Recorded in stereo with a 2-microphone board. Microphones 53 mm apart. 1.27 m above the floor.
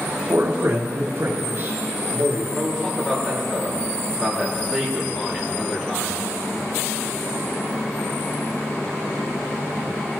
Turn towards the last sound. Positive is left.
turn(degrees=5)  # may be behind; listen again after turning